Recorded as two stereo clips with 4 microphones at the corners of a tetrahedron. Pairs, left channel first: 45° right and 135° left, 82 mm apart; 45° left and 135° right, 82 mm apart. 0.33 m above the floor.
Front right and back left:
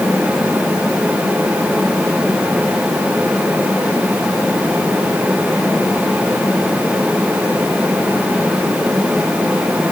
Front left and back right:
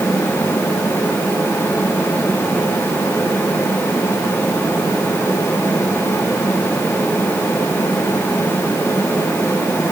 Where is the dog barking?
No dog barking in this recording.